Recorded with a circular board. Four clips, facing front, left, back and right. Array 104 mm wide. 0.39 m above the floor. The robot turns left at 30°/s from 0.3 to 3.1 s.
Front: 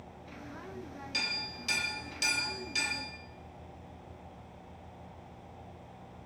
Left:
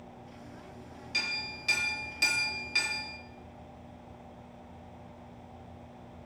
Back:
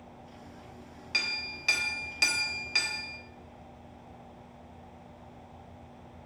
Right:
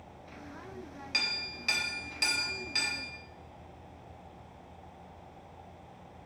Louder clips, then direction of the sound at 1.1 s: Left 2 dB, back 4 dB; 140° right.